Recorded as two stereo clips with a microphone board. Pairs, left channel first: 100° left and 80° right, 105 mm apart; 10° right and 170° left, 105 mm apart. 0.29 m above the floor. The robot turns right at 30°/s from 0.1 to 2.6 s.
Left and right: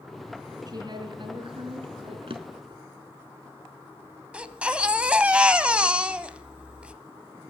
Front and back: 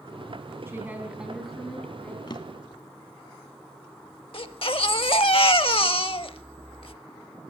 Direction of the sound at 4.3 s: 5° right.